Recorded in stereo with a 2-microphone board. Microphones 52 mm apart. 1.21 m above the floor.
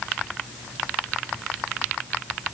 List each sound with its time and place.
Only background noise.